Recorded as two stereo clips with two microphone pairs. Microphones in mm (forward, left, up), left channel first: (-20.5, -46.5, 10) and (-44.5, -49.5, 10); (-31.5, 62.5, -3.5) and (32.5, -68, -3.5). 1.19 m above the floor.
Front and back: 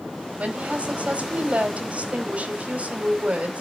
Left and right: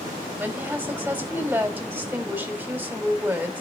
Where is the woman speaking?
140° right, 5 m.